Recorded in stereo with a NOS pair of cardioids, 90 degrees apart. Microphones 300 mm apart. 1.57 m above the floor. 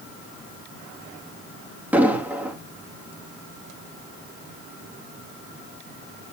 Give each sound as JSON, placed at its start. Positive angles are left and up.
{"t": 1.9, "sound": "an explosion", "azimuth_deg": -5, "distance_m": 3.0}